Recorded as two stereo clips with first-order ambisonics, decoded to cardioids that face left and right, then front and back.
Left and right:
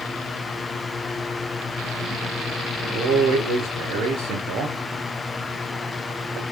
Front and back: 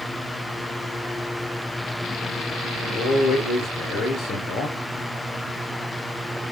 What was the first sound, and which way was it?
A man speaking, 55° right.